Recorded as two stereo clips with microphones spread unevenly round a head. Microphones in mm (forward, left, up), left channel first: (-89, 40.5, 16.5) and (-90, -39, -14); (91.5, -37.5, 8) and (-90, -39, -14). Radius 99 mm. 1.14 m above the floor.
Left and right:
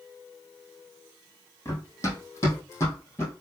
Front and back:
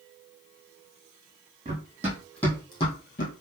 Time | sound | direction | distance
1.6 | running footsteps | 115° left | 2 m